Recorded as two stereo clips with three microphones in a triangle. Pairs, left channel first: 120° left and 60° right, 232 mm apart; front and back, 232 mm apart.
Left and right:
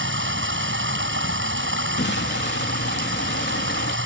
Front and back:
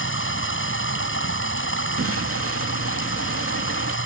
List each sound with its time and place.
0.0 s running water: 30° right
2.0 s an explosion: 160° left